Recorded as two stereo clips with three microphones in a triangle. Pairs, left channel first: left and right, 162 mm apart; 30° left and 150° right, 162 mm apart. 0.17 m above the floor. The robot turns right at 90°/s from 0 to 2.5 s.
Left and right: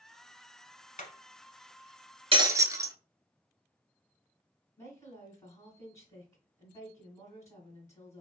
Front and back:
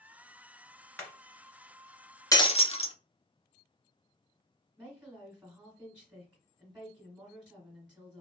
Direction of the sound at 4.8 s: 135° left.